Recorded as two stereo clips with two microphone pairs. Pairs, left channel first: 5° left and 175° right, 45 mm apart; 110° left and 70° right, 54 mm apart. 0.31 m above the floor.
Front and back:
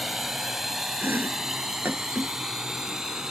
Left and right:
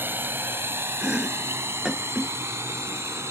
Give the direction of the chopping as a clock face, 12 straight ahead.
5 o'clock.